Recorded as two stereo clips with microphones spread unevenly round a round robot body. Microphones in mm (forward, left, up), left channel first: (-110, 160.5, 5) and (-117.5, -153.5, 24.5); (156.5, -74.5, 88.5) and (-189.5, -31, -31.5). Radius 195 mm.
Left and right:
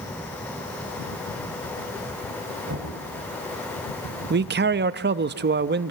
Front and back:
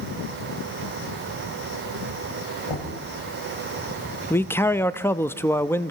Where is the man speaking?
120° right, 0.7 m.